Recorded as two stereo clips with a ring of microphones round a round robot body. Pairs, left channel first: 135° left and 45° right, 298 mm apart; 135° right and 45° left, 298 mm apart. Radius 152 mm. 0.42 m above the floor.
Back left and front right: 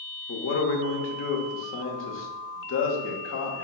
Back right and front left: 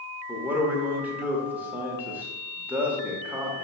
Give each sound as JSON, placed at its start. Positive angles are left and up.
{"t": 0.3, "sound": "a man speaking", "azimuth_deg": 125, "distance_m": 0.9}